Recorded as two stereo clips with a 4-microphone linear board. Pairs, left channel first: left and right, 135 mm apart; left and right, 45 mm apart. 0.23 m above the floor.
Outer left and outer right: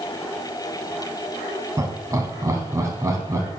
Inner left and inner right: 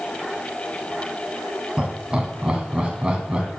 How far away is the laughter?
About 1.5 m.